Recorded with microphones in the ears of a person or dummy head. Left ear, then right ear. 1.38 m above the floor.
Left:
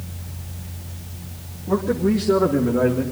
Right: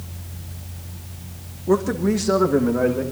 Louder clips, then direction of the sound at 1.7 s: Right 1 dB; 80° right.